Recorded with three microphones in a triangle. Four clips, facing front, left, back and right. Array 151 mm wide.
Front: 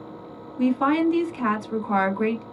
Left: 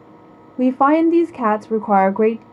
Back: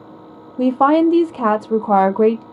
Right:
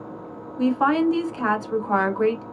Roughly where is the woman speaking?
Behind left.